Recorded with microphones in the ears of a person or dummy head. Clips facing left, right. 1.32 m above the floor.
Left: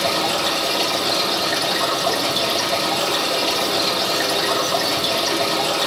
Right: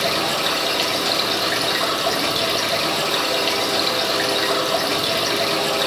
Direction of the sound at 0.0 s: 15° right (ahead or behind).